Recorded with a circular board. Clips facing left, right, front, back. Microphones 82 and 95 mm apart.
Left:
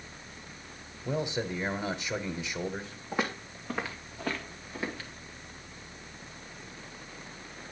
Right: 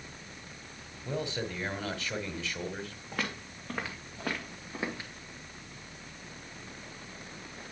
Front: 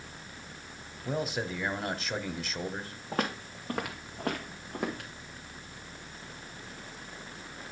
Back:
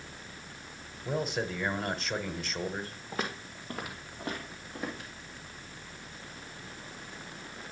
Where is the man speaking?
85° left, 1.1 m.